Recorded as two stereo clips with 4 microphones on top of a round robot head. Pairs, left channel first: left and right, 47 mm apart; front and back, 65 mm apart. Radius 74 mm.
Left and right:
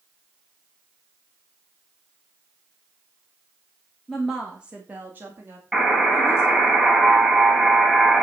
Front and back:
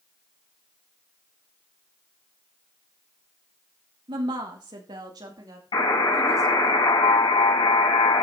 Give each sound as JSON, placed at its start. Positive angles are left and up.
{"t": 4.1, "sound": "a woman speaking", "azimuth_deg": 175, "distance_m": 1.4}
{"t": 5.7, "sound": "a buzzer", "azimuth_deg": -10, "distance_m": 6.0}